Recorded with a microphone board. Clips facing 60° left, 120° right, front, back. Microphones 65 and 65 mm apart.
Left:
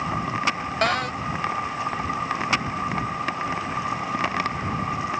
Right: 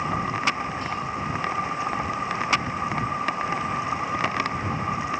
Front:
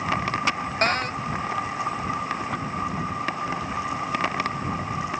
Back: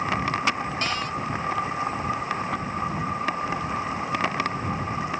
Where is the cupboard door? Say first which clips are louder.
Left 6 dB, front 7 dB; 45° left.